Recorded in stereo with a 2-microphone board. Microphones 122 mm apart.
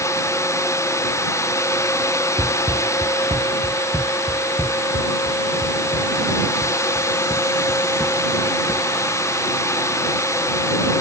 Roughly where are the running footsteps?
Right.